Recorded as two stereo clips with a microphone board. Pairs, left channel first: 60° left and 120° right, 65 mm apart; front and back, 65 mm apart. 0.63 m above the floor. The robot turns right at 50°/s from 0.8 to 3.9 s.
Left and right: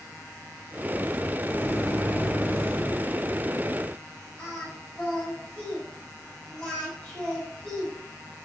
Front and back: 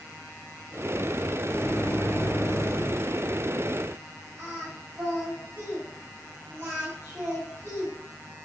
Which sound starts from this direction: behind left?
Singing, at 4.4 s.